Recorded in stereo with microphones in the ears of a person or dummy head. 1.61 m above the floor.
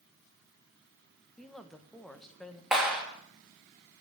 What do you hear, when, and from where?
1.4 s a woman speaking: centre (ahead or behind), 1.3 m
2.7 s a clap: centre (ahead or behind), 3 m